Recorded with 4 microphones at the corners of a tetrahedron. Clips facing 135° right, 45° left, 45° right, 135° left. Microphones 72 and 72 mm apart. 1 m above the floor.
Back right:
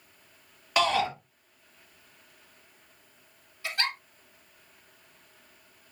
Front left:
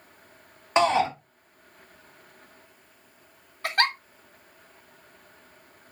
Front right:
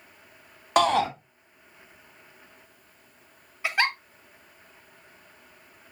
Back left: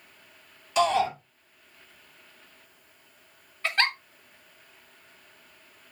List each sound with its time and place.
0.8 s a shout: 20° right, 1.4 m
3.6 s a giggle: 30° left, 0.8 m